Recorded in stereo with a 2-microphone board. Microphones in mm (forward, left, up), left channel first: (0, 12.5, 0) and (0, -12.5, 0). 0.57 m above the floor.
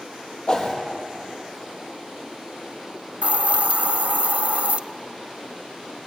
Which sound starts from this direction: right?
A hiss, at 3.2 s.